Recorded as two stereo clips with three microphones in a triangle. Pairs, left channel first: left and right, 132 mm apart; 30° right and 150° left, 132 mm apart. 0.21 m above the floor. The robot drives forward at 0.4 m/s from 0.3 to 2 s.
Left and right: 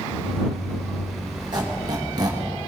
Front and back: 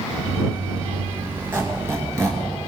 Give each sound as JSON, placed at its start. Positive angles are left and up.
{"t": 1.5, "sound": "a squeak", "azimuth_deg": -140, "distance_m": 2.5}